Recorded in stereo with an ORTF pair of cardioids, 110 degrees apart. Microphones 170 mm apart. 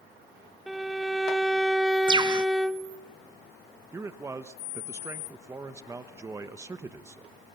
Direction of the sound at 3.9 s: 15° right.